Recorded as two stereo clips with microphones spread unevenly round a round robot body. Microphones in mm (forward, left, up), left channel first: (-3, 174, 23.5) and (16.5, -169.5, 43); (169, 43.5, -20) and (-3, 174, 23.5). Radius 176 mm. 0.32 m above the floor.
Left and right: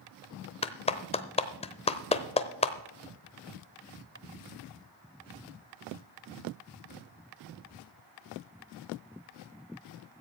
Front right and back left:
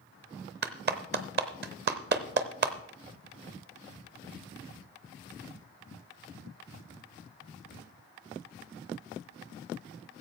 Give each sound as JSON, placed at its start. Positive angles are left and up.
{"t": 0.6, "sound": "a clap", "azimuth_deg": 150, "distance_m": 0.8}